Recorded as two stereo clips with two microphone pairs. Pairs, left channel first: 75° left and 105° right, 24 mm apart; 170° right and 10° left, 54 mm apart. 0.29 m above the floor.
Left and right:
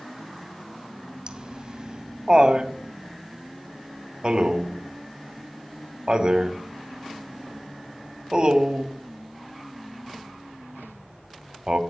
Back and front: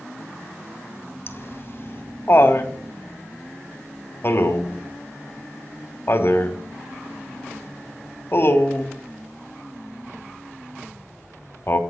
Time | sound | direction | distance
1.3 | laughter | 150° right | 2 m